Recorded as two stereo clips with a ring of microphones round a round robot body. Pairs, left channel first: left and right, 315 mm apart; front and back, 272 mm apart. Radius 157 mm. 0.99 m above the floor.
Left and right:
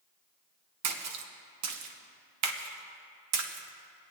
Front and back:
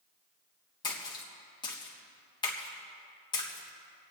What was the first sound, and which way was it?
A splash, 70° right.